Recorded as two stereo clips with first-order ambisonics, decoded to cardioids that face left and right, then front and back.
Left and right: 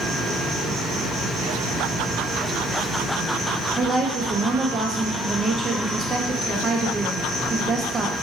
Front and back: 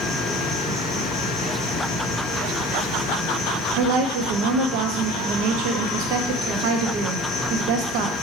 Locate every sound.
0.0 s an insect: 55° right, 2.0 m
3.8 s a woman speaking: 160° right, 0.6 m